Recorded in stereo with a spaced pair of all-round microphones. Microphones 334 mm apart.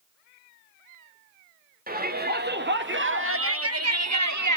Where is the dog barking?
No dog barking in this recording.